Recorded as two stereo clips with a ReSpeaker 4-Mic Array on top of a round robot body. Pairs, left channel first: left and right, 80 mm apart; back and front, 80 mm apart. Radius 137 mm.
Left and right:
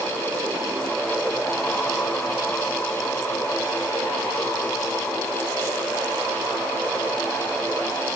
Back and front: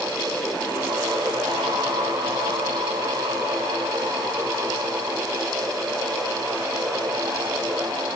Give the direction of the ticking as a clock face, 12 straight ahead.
No ticking in this recording.